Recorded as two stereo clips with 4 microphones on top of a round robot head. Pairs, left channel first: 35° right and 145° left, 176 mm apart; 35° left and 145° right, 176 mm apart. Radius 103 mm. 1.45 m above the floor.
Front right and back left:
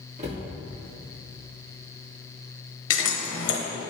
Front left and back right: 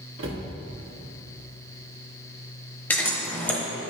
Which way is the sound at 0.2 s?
165° right.